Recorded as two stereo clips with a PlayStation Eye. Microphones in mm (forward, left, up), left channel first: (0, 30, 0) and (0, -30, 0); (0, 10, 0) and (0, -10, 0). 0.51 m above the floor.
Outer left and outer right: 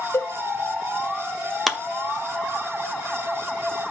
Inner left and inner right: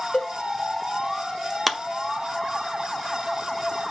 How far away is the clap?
About 0.8 m.